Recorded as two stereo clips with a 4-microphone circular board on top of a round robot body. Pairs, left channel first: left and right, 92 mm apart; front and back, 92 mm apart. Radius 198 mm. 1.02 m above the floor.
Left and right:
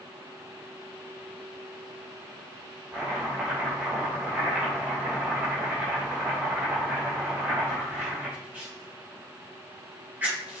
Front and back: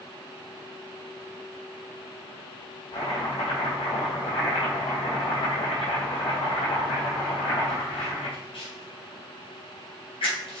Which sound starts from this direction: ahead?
Chopping, at 2.9 s.